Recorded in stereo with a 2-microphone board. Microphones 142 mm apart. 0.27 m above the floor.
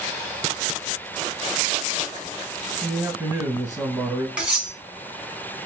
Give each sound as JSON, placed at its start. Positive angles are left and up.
{"t": 2.8, "sound": "a man speaking", "side_deg": -25, "distance_m": 1.2}
{"t": 4.4, "sound": "cutlery clinking", "side_deg": -5, "distance_m": 1.4}